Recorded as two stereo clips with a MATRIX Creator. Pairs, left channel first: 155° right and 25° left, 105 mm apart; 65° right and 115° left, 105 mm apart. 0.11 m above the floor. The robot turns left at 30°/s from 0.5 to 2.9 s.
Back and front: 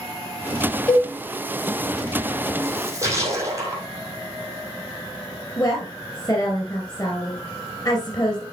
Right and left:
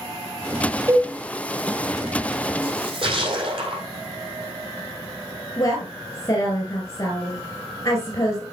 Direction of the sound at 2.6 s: 90° left.